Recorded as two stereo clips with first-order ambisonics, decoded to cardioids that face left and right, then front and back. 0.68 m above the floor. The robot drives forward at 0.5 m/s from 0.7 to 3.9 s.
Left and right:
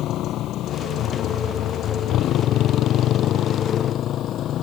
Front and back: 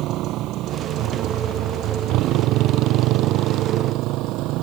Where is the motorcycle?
140° left; by 4.6 s 145° left.